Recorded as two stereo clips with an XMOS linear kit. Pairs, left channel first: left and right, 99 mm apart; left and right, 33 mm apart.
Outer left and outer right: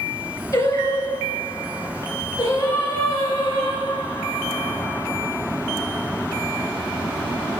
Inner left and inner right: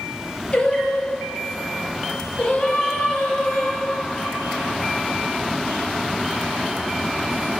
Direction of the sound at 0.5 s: 30° left (ahead or behind).